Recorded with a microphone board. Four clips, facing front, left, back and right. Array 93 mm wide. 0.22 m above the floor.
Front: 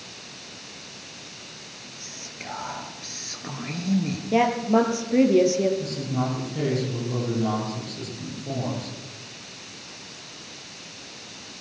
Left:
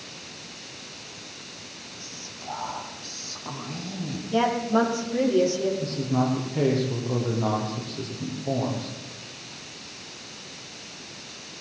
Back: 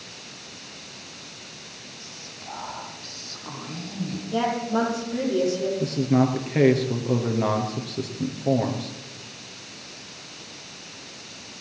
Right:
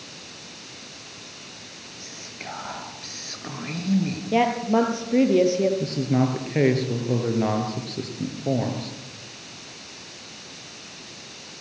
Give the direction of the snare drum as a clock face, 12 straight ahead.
I don't hear a snare drum.